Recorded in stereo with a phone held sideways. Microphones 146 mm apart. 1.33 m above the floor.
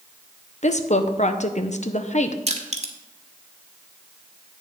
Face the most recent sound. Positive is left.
turn(degrees=-50)  # may be behind; listen again after turning